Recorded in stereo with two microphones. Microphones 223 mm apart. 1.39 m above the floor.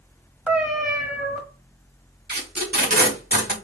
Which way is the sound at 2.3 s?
45° right (ahead or behind).